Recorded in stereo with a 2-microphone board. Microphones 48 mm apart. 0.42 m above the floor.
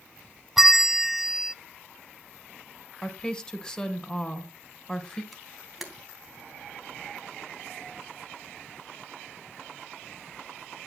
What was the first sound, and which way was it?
A bell, 5° right (ahead or behind).